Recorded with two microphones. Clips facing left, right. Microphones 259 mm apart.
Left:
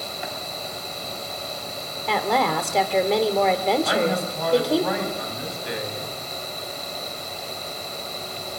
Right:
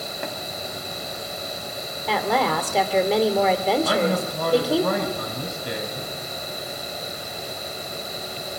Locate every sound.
0.2 s tapping: 60° right (ahead or behind), 2.5 m
2.1 s a woman speaking: centre (ahead or behind), 2 m
3.8 s a man speaking: 50° right (ahead or behind), 4.5 m